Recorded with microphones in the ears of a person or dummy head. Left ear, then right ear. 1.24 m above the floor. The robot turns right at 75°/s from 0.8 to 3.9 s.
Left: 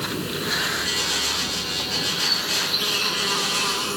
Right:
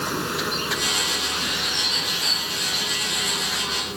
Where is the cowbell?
I don't hear a cowbell.